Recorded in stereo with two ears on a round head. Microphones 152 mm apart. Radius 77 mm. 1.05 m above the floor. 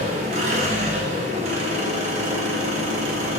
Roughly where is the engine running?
Right.